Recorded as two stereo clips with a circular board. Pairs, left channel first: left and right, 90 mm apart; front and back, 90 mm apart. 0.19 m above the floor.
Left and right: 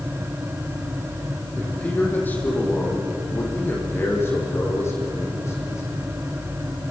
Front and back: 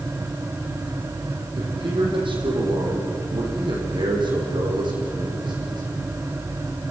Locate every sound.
1.6 s a man speaking: 165° left, 7 m; by 5.8 s 150° left, 10 m